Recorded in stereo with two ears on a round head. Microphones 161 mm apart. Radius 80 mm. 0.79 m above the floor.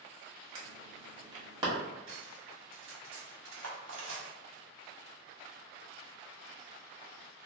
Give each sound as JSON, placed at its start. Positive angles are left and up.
{"t": 0.6, "sound": "an alarm", "side_deg": -25, "distance_m": 1.4}
{"t": 2.1, "sound": "cutlery clinking", "side_deg": -70, "distance_m": 1.2}